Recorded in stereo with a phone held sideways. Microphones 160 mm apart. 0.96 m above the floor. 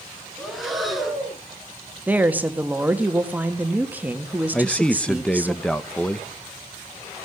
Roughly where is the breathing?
Centre.